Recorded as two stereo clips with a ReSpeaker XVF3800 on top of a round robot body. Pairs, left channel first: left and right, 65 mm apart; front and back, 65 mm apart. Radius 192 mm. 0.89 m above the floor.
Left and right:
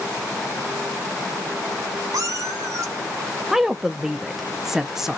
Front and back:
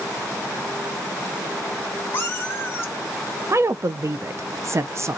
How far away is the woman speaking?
About 0.5 m.